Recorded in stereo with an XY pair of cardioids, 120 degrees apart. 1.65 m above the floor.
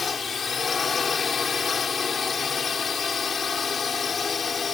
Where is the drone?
30° left.